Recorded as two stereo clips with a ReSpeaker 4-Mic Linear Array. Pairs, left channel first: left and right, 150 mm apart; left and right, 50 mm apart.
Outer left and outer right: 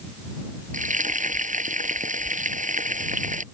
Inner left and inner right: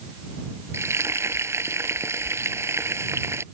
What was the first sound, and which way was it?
Frying, 60° right (ahead or behind).